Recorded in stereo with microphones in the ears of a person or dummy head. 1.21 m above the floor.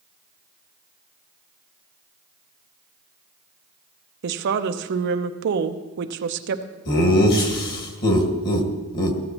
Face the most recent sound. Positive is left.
turn(degrees=55)  # may be behind; listen again after turning